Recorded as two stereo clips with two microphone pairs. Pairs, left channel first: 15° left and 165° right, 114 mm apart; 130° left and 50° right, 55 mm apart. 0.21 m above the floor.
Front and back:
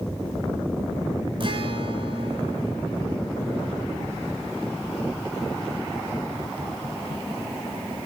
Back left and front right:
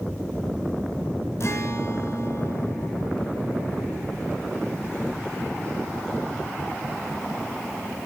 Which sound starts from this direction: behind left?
A guitar, at 1.4 s.